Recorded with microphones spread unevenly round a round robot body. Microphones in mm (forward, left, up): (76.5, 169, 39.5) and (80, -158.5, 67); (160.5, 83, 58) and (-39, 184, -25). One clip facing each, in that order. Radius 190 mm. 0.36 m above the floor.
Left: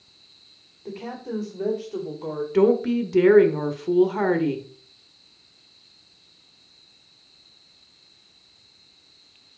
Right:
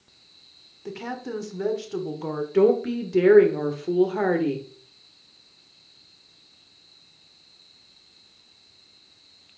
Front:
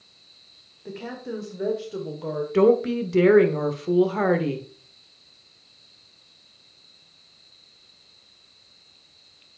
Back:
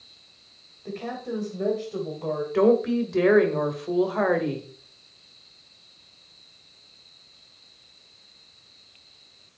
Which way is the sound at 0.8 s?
130° right.